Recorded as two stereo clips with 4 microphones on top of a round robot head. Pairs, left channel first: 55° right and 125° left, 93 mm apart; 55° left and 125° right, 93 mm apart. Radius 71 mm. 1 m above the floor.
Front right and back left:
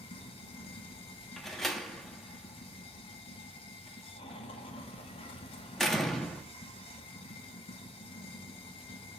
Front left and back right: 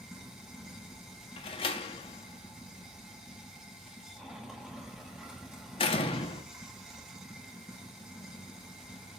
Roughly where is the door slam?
Ahead left.